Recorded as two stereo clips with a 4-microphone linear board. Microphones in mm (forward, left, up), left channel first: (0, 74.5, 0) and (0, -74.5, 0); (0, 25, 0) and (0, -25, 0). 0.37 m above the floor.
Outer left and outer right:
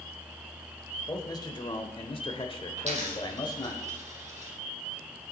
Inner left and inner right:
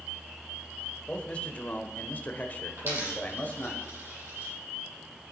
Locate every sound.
1.1 s a man speaking: 25° left (ahead or behind), 1.2 m; by 3.8 s 30° left (ahead or behind), 1.3 m
2.8 s a dropped coin: 50° right (ahead or behind), 3.5 m